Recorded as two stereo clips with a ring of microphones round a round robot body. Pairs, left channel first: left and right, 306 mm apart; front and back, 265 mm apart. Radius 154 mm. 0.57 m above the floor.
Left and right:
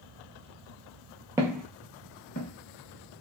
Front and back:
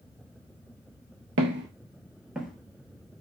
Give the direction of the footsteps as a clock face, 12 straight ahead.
6 o'clock.